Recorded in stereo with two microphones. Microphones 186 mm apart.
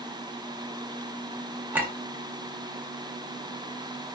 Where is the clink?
10° right (ahead or behind), 0.7 m.